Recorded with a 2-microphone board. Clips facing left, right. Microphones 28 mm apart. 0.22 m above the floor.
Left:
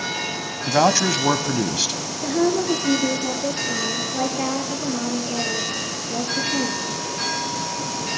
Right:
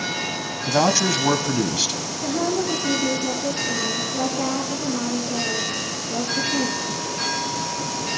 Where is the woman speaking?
55° left (ahead or behind), 5.5 m.